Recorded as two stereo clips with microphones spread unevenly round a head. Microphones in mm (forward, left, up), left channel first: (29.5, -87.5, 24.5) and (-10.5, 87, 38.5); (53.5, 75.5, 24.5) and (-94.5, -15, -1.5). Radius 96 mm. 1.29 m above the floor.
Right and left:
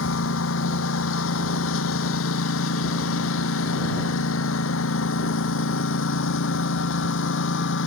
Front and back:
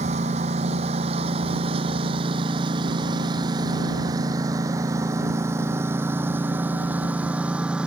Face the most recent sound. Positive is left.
turn(degrees=-60)